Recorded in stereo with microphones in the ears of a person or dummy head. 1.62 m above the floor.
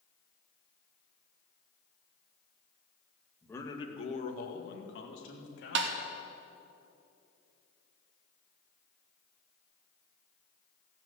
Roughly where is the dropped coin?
I don't hear a dropped coin.